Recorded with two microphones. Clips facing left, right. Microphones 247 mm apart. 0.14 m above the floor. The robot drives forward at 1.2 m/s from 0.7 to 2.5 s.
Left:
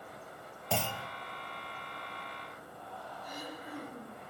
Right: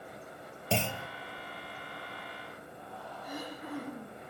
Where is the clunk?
30° right (ahead or behind), 0.9 m; by 1.1 s 20° right (ahead or behind), 1.3 m.